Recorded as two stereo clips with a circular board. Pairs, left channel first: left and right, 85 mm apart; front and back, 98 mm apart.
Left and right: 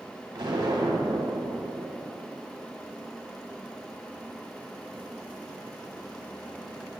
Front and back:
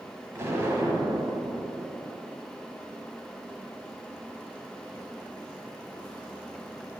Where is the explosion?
120° right, 1.0 m.